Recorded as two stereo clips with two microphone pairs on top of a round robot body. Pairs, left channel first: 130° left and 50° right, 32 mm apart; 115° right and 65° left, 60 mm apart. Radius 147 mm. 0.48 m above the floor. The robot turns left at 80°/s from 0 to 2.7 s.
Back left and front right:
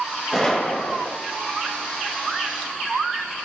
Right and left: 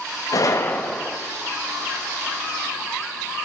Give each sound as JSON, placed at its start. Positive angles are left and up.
{"t": 0.3, "sound": "a gunshot", "azimuth_deg": -145, "distance_m": 0.6}